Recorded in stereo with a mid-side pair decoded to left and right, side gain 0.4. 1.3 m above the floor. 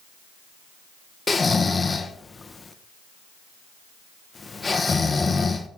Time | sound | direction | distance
1.3 | snoring | 30° left | 1.0 m